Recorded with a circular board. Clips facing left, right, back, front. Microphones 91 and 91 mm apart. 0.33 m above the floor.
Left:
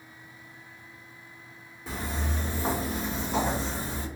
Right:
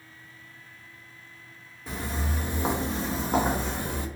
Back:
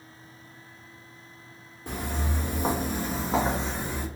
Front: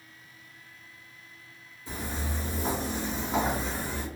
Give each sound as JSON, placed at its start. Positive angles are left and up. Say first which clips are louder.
{"t": 1.9, "sound": "footsteps", "louder": "right 1 dB, back 3 dB", "azimuth_deg": 175, "distance_m": 0.9}